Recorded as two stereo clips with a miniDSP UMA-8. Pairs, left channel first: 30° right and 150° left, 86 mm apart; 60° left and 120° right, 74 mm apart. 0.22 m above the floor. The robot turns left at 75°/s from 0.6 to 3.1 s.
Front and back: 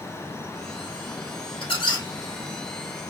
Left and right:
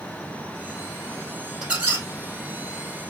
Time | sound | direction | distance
1.6 | a squeak | 40° right | 1.6 m